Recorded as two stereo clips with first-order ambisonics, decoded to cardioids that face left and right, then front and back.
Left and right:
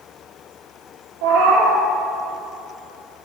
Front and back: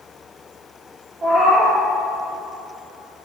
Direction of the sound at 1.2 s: 110° right.